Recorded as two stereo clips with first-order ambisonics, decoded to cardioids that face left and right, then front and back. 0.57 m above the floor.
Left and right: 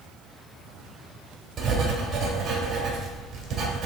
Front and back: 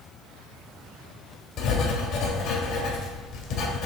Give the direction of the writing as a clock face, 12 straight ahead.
1 o'clock.